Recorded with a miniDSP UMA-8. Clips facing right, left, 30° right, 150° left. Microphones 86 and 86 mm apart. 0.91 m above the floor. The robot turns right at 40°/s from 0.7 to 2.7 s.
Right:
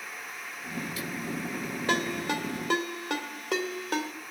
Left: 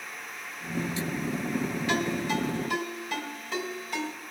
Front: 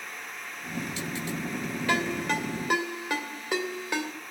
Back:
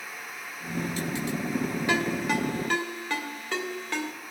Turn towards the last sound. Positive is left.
turn(degrees=-110)